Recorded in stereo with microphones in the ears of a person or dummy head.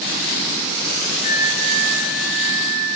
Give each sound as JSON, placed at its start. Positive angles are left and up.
{"t": 1.2, "sound": "a flute", "side_deg": 55, "distance_m": 6.5}